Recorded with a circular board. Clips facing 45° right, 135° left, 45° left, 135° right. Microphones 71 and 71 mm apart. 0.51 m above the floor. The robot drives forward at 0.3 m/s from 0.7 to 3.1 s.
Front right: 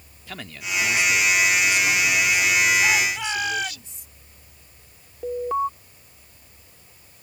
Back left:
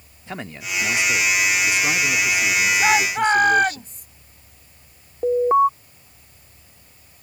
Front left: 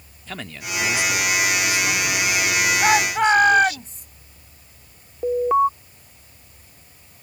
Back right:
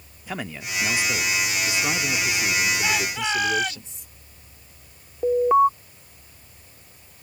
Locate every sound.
0.3 s a man speaking: 165° left; by 3.8 s 175° left
2.8 s a shout: 90° left
5.2 s an alarm: 140° left